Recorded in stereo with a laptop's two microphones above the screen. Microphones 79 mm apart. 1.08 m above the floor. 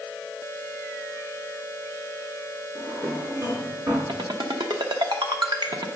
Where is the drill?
I don't hear a drill.